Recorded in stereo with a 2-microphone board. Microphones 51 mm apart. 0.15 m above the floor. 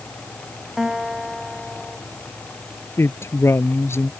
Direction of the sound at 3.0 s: 50° left (ahead or behind).